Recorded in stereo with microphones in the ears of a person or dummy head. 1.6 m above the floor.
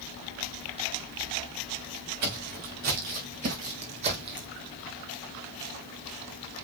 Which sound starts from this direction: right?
Footsteps, at 2.2 s.